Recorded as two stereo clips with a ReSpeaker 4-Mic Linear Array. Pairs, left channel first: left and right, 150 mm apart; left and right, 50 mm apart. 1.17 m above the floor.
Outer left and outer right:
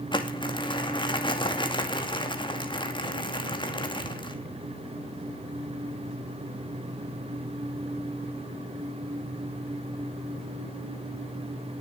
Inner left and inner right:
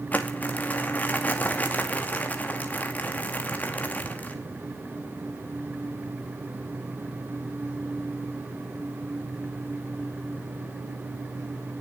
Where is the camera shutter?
I don't hear a camera shutter.